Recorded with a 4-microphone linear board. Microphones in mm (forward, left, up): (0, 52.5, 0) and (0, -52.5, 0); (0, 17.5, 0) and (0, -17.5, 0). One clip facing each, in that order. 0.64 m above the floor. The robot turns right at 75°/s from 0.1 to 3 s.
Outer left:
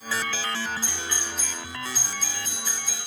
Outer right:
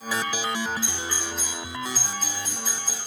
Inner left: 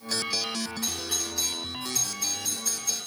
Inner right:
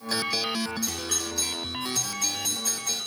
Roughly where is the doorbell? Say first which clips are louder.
Outer right 2 dB, inner right 1 dB; left.